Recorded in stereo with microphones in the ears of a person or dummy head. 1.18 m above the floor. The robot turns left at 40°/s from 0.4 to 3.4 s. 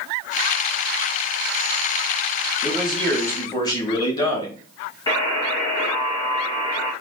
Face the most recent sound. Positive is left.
turn(degrees=20)  # may be behind; listen again after turning